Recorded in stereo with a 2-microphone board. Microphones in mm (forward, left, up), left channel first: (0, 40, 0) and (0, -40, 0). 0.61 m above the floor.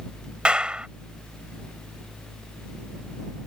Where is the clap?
15° right (ahead or behind).